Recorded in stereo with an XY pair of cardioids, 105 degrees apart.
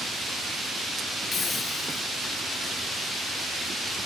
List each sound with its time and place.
1.3 s a hiss: 35° left